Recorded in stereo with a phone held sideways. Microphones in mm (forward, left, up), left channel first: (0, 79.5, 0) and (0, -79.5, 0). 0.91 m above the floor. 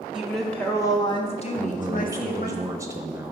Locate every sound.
0.1 s a woman speaking: 5° right (ahead or behind), 1.2 m; by 2.6 s 70° left (ahead or behind), 1.5 m
1.6 s a man speaking: 20° right (ahead or behind), 0.8 m